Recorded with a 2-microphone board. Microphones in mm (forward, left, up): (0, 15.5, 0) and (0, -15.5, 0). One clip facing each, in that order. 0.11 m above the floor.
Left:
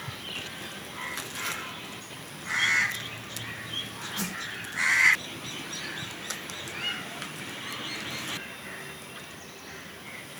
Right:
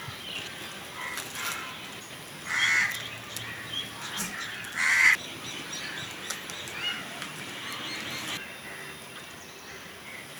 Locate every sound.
4.2 s a whoosh: 85° left, 3.5 m